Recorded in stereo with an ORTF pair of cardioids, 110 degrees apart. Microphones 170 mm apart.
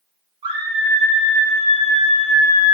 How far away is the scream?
About 4 m.